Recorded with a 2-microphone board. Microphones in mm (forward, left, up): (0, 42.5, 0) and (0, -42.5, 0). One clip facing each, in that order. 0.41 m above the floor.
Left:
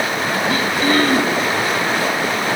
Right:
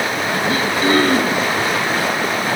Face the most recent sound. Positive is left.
turn(degrees=-25)  # may be behind; listen again after turning